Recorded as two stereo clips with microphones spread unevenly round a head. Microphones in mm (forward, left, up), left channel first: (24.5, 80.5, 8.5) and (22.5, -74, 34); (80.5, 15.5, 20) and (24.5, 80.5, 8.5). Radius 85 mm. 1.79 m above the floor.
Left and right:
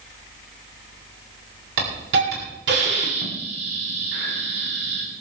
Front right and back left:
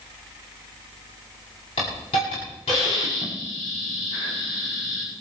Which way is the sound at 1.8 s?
95° right.